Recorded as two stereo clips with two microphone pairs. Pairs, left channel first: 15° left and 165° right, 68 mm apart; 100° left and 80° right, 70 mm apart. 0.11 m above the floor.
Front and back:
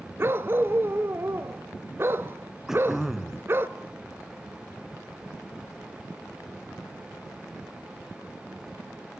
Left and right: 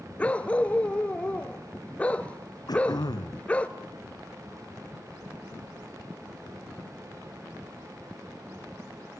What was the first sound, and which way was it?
A dog barking, 160° left.